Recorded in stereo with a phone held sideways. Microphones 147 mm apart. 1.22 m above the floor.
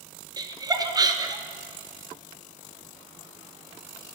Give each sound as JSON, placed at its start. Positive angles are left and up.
{"t": 0.4, "sound": "laughter", "side_deg": -25, "distance_m": 0.8}